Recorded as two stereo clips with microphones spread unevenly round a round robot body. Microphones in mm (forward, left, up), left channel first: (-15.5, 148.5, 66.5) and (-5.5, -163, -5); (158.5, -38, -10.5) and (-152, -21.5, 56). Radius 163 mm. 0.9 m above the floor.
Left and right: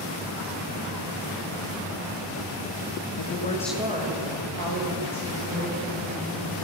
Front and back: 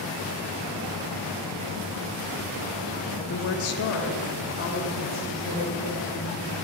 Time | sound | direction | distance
3.2 | a woman speaking | 55° left | 0.8 m